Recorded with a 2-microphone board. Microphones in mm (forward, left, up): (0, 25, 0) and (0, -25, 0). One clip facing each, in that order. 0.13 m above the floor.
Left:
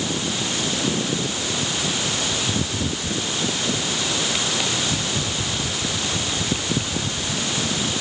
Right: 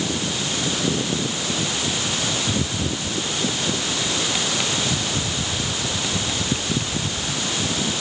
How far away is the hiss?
I don't hear a hiss.